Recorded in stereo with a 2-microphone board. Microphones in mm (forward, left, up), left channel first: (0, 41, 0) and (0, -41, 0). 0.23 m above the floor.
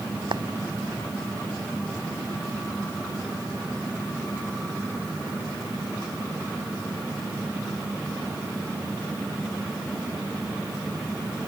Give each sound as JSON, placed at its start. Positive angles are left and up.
{"t": 0.3, "sound": "a clap", "side_deg": -70}